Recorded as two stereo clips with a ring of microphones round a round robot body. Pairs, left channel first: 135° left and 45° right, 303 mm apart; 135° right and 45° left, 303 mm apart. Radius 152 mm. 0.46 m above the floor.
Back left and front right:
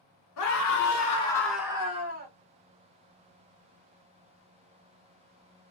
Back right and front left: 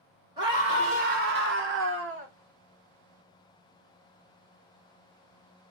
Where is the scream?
120° left, 1.5 m; by 2.3 s 5° left, 1.5 m.